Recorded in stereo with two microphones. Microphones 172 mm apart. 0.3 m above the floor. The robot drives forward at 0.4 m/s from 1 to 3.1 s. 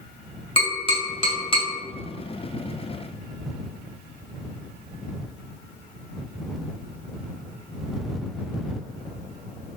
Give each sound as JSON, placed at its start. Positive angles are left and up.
{"t": 0.6, "sound": "tapping", "side_deg": 30, "distance_m": 1.7}